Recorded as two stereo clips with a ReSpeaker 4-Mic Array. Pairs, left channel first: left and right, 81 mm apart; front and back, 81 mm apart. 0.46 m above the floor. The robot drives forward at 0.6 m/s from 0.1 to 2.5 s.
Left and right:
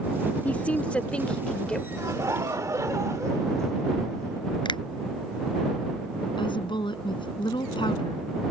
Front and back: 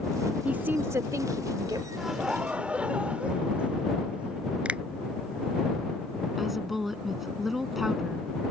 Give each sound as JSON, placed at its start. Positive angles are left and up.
{"t": 0.5, "sound": "a woman speaking", "azimuth_deg": 130}
{"t": 2.0, "sound": "laughter", "azimuth_deg": -95}
{"t": 4.7, "sound": "a finger snap", "azimuth_deg": 105}
{"t": 6.4, "sound": "a woman speaking", "azimuth_deg": 95}